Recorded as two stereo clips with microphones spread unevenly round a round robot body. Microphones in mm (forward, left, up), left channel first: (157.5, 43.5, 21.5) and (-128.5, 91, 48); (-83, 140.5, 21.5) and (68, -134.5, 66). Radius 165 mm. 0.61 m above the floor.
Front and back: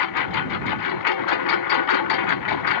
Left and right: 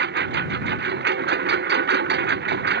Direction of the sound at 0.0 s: Straight ahead.